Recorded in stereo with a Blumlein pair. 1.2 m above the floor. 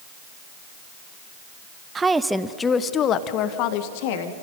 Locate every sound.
1.9 s a woman speaking: 20° right, 0.7 m; by 4.3 s 50° left, 1.5 m